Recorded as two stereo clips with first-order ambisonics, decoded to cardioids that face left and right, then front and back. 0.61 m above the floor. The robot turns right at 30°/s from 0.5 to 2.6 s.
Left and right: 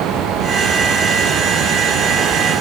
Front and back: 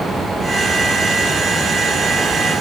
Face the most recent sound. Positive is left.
No sound to turn to.